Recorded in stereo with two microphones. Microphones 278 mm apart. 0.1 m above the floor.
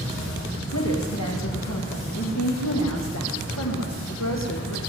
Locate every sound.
0.7 s a woman speaking: 75° left (ahead or behind), 7 m; by 4.8 s 65° left (ahead or behind), 5.5 m